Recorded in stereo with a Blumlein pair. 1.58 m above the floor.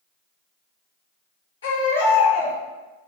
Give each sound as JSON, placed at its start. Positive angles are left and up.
{"t": 1.6, "sound": "a baby crying", "azimuth_deg": 65, "distance_m": 1.3}